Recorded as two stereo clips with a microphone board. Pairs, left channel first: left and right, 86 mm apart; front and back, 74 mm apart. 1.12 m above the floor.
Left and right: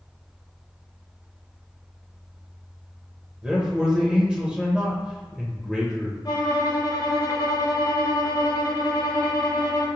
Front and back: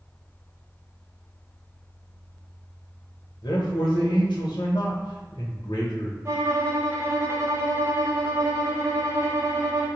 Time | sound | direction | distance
3.4 | a man speaking | 10° right | 0.7 m
6.2 | a violin | 130° left | 0.6 m